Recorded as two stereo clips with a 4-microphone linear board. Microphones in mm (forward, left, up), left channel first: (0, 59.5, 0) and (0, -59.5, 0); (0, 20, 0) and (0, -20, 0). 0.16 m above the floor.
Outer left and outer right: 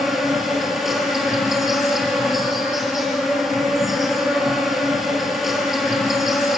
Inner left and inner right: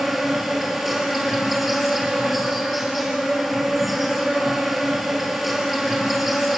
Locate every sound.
0.0 s an insect: centre (ahead or behind), 3 m